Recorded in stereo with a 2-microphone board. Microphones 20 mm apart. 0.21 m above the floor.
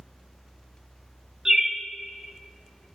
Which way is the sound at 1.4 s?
25° right (ahead or behind).